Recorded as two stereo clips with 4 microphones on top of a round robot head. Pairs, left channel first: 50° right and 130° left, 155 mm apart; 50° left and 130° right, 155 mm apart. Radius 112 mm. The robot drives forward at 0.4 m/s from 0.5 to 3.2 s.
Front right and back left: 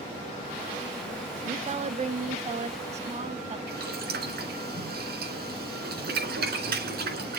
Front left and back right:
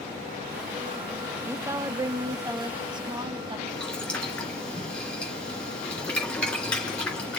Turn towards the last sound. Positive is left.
turn(degrees=135)